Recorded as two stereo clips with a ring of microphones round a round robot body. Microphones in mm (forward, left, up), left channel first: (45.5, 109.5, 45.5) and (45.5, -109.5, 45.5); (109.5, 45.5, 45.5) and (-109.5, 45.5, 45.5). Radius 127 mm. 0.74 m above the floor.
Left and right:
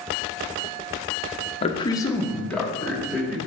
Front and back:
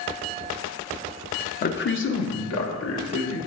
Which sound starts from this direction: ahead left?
A man speaking, at 1.6 s.